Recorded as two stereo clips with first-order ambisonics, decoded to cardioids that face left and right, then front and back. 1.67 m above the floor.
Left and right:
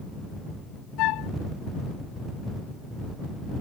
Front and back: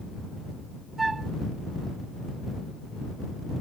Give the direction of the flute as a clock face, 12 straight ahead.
9 o'clock.